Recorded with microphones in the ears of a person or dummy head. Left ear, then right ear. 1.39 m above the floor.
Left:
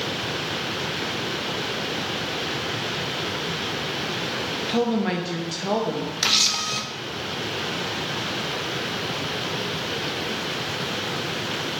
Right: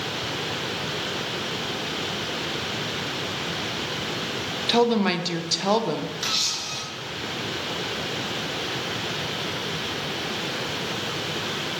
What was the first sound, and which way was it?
A woman speaking, 35° right (ahead or behind).